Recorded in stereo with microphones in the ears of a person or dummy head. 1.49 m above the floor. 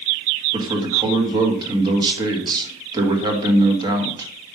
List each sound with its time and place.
0.5 s a man speaking: 20° right (ahead or behind), 1.7 m